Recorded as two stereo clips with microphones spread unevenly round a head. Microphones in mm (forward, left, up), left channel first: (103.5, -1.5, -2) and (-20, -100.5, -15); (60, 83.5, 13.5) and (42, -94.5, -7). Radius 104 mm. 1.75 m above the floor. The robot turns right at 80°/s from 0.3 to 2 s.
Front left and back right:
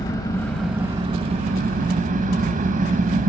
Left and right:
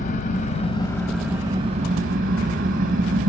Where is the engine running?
95° left, 1.2 m; by 3.3 s 130° right, 1.2 m.